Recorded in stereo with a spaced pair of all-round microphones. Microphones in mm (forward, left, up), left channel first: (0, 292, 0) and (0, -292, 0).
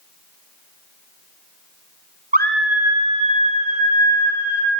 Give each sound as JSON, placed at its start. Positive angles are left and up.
{"t": 2.3, "sound": "a scream", "side_deg": -15, "distance_m": 0.7}